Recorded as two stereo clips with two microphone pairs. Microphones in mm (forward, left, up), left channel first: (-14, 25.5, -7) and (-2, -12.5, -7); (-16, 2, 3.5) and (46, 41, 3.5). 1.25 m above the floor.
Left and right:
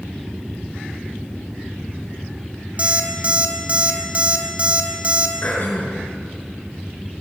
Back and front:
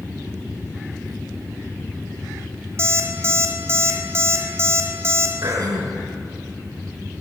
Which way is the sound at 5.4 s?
65° left.